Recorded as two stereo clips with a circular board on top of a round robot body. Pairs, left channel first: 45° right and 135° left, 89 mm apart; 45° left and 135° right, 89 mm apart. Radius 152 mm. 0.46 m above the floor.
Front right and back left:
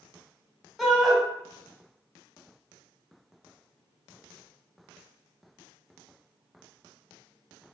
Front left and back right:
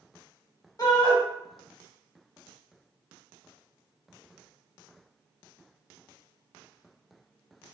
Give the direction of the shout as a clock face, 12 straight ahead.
11 o'clock.